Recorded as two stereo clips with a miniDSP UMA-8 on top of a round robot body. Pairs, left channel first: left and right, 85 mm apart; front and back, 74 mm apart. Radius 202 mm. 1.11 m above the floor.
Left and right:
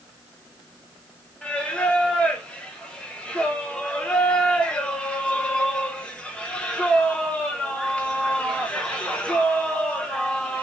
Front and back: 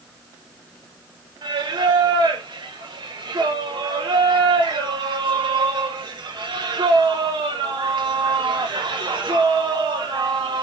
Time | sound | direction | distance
1.4 | singing | 170° left | 0.7 m